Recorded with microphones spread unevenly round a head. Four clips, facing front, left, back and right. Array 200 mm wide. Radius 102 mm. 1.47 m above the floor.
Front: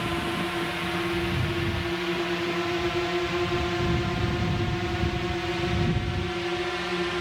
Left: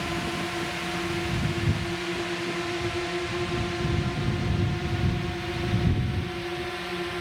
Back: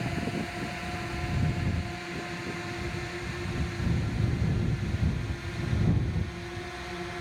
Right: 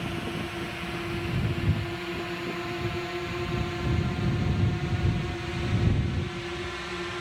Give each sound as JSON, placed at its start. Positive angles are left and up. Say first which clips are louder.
{"t": 0.0, "sound": "a drone", "louder": "left 3 dB, front 4 dB", "azimuth_deg": 20}